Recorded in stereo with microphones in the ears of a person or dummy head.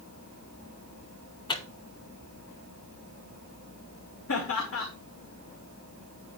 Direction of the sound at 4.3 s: 85° left.